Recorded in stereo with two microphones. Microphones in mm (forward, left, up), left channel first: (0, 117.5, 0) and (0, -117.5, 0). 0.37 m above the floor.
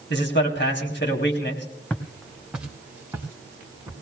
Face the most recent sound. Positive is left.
turn(degrees=-15)  # may be behind; listen again after turning